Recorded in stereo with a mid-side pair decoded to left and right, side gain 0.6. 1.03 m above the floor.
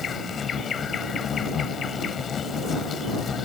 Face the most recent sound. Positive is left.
turn(degrees=40)